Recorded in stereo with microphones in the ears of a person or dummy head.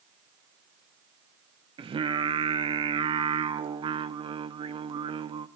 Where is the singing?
20° right (ahead or behind), 0.5 m.